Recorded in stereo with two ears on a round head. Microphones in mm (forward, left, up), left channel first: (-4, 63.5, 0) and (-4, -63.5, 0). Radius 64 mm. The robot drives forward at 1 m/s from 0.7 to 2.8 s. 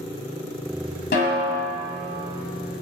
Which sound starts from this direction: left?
A snare drum, at 1.1 s.